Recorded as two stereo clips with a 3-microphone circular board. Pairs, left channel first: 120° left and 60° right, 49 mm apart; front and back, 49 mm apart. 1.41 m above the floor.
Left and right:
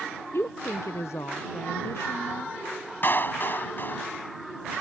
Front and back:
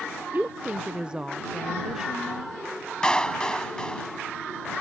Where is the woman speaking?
135° left; by 2.6 s 95° left.